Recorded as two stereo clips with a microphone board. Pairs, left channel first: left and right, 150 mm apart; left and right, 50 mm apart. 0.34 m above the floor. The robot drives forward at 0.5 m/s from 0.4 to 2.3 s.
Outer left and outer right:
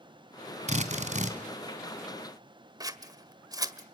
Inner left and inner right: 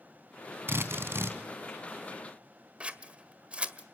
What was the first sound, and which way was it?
A drill, 50° right (ahead or behind).